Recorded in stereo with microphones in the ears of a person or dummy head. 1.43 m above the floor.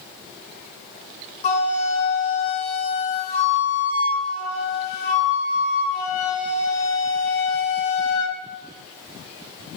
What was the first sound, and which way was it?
A flute, 40° left (ahead or behind).